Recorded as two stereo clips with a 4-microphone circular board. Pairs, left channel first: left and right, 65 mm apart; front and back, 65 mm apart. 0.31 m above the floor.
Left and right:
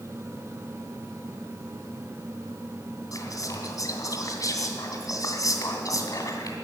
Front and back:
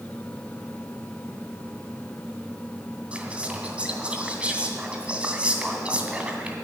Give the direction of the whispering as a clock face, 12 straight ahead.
8 o'clock.